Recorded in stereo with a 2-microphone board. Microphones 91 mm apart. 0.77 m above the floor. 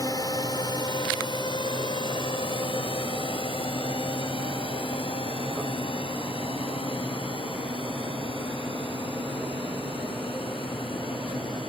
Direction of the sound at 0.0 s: 40° left (ahead or behind).